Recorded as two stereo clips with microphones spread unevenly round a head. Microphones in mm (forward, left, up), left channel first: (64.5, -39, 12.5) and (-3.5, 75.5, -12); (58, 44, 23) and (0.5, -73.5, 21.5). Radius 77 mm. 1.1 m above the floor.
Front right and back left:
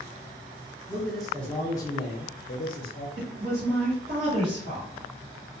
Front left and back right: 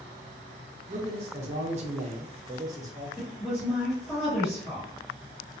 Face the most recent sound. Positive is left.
turn(degrees=155)